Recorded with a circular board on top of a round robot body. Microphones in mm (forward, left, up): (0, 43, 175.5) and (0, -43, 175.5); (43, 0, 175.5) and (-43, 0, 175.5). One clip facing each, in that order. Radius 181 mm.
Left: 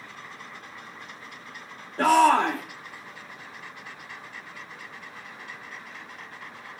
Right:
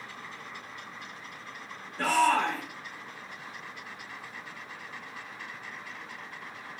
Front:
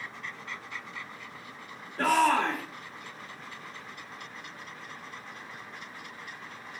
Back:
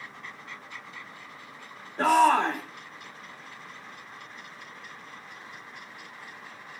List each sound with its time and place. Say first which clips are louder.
2.0 s a shout: left 6 dB, back 4 dB; 120° left, 1.9 m